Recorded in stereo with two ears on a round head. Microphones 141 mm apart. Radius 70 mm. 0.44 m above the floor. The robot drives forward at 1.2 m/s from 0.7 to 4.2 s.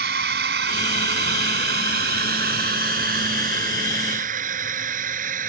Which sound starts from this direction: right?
A drone, at 0.0 s.